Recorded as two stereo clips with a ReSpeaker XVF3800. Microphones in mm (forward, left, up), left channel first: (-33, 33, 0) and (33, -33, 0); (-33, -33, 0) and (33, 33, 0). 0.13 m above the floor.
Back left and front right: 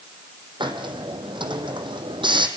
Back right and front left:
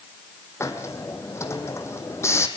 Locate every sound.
0.6 s a hiss: 75° right, 2.5 m